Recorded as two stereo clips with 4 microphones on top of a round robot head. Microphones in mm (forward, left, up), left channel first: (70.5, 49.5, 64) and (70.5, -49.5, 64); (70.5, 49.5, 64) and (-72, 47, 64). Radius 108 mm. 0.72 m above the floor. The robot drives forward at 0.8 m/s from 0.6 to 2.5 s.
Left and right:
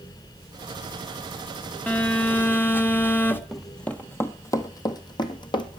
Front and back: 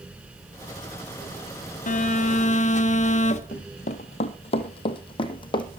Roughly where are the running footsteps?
Ahead.